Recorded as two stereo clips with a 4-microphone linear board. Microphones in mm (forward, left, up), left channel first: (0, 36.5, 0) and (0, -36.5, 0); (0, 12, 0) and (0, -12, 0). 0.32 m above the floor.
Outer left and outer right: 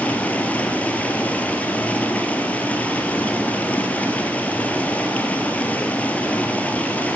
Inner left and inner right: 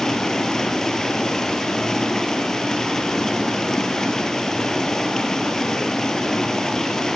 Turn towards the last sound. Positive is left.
turn(degrees=20)  # may be behind; listen again after turning